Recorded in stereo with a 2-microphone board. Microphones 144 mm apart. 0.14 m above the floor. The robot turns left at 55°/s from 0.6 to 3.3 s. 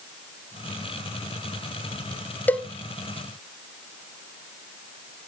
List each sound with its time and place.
2.5 s a cowbell: 15° left (ahead or behind), 0.6 m; by 2.7 s 5° left (ahead or behind), 0.6 m